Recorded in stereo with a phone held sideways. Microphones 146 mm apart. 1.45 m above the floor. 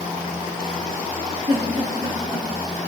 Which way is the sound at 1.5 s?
55° right (ahead or behind).